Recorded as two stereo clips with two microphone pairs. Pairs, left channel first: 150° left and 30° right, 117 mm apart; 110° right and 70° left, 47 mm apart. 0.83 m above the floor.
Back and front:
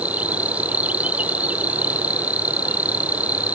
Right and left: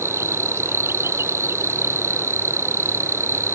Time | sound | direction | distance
0.0 | an insect | 50° left | ?